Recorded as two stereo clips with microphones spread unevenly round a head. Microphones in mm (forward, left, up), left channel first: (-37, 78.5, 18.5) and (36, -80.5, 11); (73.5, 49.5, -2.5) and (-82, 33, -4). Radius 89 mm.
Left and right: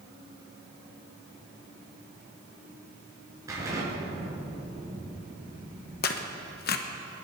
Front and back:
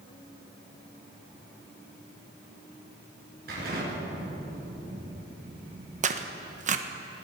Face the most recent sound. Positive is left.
turn(degrees=145)